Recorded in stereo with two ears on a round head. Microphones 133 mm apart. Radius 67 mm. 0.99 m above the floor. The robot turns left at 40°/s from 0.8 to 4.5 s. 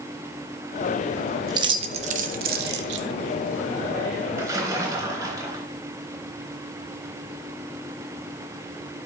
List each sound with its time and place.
1.5 s keys jangling: 25° right (ahead or behind), 0.9 m; by 3.0 s 85° right, 0.9 m
4.4 s a splash: 15° right (ahead or behind), 3 m; by 5.6 s 20° right (ahead or behind), 3 m